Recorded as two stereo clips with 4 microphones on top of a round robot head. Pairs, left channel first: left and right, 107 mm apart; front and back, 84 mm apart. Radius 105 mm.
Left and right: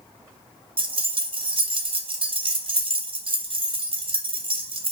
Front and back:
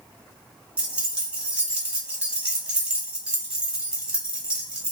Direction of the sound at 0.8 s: 105° right.